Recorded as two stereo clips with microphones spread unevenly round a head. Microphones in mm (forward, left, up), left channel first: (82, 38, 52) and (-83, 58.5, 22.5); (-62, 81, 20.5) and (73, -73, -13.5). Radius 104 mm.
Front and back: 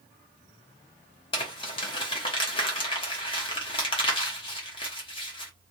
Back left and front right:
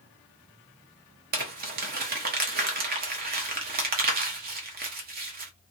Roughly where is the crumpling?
Right.